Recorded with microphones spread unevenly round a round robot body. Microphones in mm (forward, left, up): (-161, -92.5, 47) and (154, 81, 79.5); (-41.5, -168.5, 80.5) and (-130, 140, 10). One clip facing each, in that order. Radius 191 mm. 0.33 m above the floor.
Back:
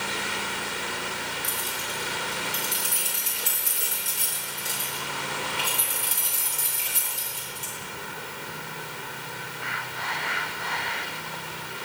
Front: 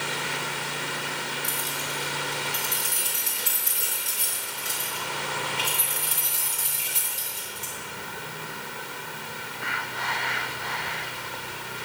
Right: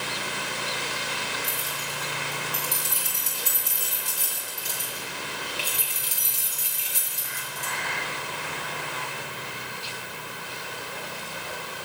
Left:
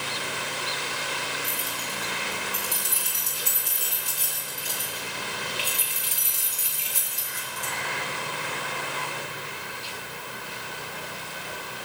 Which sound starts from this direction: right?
Keys jangling, at 1.4 s.